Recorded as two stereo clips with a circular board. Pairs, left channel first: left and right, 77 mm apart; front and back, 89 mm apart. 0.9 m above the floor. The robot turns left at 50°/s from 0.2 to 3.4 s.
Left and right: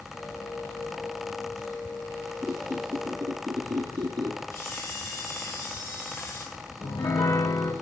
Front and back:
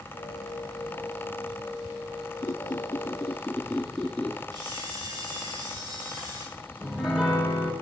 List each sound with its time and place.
2.4 s a squeak: 30° right, 2.5 m; by 4.4 s 80° right, 2.5 m
4.5 s a camera shutter: 140° left, 9 m
6.8 s a piano: 95° left, 4.5 m